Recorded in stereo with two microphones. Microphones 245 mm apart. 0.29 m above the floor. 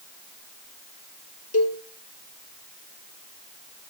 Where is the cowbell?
75° left (ahead or behind), 1.9 m.